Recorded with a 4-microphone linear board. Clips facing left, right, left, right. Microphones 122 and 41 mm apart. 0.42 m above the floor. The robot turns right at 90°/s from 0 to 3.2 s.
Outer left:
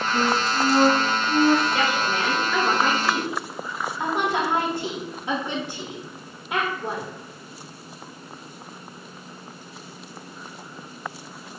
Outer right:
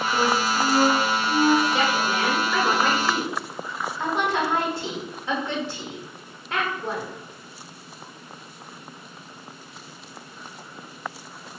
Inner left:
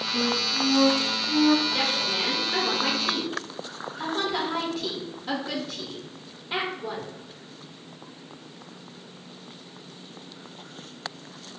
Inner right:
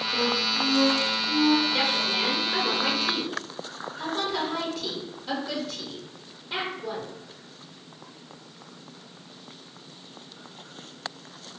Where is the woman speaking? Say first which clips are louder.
Outer right 1 dB, inner right 1 dB; 20° right (ahead or behind), 1.0 m; by 7.1 s 15° left (ahead or behind), 1.0 m.